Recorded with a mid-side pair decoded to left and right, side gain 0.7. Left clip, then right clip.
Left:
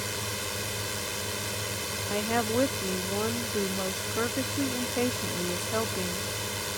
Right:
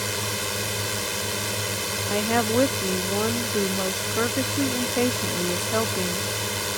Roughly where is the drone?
Ahead right.